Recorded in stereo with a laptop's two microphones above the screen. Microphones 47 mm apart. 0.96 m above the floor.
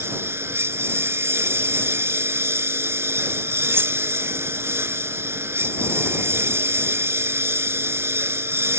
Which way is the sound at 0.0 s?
70° right (ahead or behind).